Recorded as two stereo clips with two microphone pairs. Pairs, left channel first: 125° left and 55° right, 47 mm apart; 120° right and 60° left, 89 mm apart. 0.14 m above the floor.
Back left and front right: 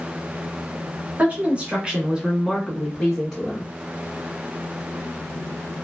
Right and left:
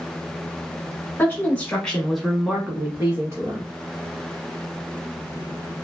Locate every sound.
1.2 s a woman speaking: 80° right, 1.3 m; by 3.7 s 55° left, 1.3 m